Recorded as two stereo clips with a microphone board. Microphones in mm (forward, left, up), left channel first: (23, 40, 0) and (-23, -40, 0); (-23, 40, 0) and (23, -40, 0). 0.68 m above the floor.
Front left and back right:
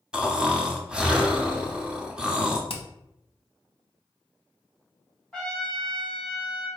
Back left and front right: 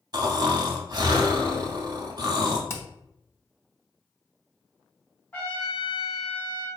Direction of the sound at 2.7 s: 60° left.